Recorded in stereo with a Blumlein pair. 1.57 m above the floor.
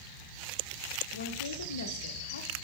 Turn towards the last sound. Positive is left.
turn(degrees=65)